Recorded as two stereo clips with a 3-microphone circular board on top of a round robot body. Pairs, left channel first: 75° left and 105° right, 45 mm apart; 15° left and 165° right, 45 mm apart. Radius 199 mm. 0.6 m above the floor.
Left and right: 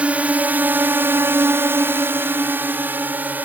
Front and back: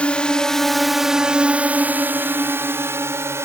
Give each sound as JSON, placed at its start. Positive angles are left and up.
{"t": 0.0, "sound": "a drone", "azimuth_deg": -45}